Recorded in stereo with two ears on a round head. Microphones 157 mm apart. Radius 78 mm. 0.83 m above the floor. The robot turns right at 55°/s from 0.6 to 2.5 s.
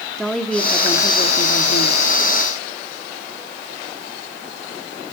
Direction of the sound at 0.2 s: 5° left.